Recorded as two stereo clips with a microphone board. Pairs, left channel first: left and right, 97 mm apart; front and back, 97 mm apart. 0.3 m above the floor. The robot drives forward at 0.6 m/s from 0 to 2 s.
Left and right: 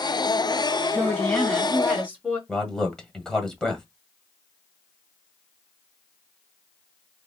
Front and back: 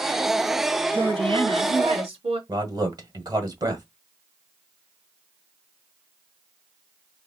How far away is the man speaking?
About 1.4 m.